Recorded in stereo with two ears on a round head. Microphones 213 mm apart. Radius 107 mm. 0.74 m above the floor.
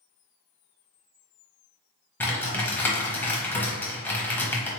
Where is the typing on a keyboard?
10° left (ahead or behind), 0.9 m.